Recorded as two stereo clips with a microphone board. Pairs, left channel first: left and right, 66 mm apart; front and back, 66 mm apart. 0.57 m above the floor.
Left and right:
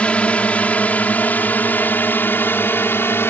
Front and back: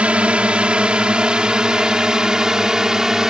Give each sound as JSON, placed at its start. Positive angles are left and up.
{"t": 0.0, "sound": "a drone", "azimuth_deg": 135}